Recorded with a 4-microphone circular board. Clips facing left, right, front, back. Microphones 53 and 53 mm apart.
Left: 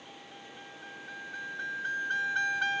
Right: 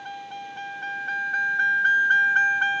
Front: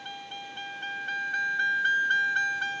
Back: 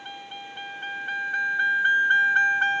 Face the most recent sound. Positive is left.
turn(degrees=-150)